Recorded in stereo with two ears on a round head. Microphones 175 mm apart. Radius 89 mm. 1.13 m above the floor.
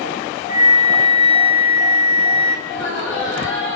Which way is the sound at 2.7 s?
65° left (ahead or behind).